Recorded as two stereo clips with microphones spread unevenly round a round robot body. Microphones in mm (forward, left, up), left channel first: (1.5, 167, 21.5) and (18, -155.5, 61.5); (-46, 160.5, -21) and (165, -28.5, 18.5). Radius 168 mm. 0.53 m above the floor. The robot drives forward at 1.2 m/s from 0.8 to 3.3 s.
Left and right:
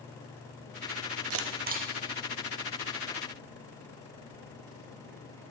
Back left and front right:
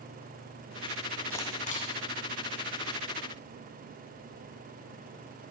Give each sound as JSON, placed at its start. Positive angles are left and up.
{"t": 1.3, "sound": "a camera shutter", "azimuth_deg": -135, "distance_m": 0.8}